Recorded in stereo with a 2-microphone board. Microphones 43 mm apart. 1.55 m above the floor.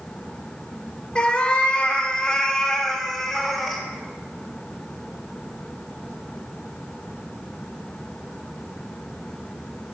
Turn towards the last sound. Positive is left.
turn(degrees=0)  # may be behind; listen again after turning